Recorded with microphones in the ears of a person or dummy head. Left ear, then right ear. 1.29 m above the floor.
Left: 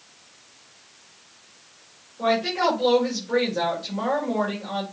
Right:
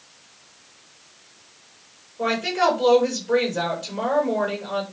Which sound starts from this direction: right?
A woman speaking, at 2.2 s.